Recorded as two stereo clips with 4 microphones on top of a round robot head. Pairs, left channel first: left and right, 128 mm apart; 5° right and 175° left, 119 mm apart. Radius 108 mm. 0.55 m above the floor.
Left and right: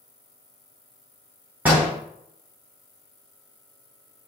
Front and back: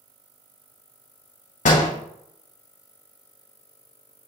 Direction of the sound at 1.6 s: 10° right.